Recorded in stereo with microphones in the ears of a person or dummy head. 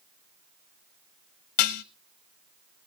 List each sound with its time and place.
1.6 s dishes clattering: 45° left (ahead or behind), 0.7 m